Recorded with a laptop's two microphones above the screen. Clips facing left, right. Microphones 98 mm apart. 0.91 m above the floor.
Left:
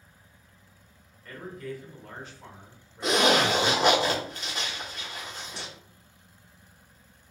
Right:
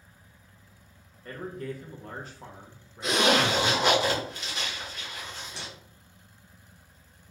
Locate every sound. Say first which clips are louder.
1.2 s a man speaking: right 2 dB; 40° right (ahead or behind), 0.9 m
3.0 s a zipper: left 1 dB; 50° left (ahead or behind), 0.9 m